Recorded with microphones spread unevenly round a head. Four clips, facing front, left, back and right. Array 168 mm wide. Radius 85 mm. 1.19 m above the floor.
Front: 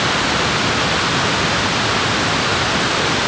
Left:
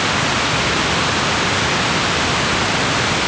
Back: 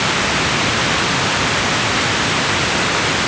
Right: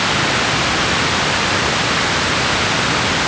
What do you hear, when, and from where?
Only background noise.